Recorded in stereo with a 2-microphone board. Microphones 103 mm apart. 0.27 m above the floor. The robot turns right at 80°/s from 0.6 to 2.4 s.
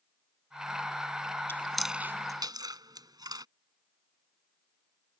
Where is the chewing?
25° left (ahead or behind); by 3.5 s 40° right (ahead or behind).